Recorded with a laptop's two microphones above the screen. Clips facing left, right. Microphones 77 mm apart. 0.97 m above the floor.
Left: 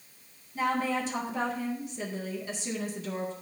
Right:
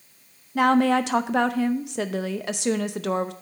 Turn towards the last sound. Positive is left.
turn(degrees=-70)  # may be behind; listen again after turning